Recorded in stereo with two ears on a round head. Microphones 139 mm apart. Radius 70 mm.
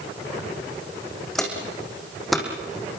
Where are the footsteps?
Centre (ahead or behind), 5 m.